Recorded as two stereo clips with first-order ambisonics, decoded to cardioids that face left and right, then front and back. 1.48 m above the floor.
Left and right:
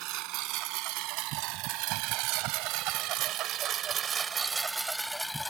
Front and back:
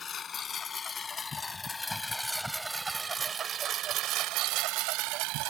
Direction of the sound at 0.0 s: 65° right.